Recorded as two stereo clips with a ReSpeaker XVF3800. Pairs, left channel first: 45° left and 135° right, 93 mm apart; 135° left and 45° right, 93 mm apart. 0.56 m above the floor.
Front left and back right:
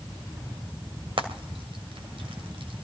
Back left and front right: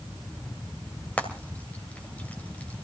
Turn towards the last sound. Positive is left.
turn(degrees=-150)